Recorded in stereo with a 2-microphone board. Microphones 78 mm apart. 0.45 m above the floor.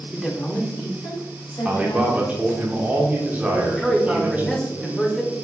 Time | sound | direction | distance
0.1 | a woman speaking | 10° right (ahead or behind) | 0.8 m
1.6 | a man speaking | 20° right (ahead or behind) | 0.7 m
3.5 | a man speaking | 5° left (ahead or behind) | 1.0 m